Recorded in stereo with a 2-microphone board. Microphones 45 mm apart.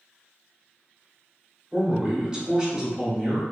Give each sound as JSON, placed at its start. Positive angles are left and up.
{"t": 1.7, "sound": "a man speaking", "side_deg": -20, "distance_m": 1.3}